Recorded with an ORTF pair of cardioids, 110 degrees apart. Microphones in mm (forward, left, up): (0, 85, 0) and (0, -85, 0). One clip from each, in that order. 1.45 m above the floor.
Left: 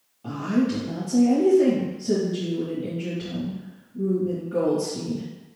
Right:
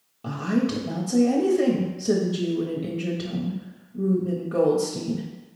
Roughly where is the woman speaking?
Ahead right.